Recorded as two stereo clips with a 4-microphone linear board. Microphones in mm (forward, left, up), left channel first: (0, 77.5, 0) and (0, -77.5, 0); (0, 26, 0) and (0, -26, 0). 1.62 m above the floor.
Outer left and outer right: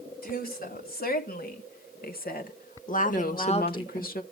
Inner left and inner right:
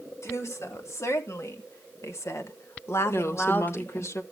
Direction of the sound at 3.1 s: 70° left (ahead or behind).